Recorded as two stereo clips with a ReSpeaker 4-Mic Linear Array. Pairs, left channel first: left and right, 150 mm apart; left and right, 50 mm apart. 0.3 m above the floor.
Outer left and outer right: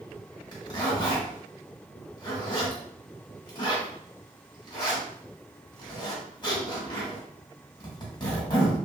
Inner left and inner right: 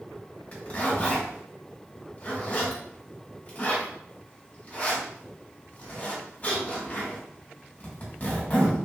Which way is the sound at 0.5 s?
30° left (ahead or behind).